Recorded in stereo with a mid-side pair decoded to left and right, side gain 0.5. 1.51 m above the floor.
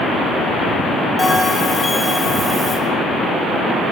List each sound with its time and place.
1.2 s a bell: 15° left, 8.5 m